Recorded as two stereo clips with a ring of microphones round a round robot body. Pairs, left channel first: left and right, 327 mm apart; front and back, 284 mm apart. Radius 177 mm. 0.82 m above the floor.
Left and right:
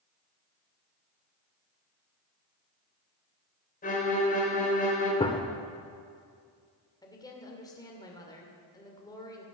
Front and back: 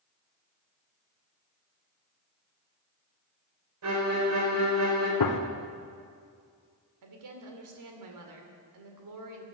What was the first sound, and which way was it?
A violin, 155° left.